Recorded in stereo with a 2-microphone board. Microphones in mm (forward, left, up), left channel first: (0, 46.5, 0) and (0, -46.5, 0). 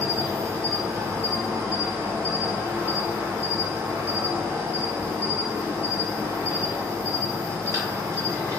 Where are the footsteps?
I don't hear footsteps.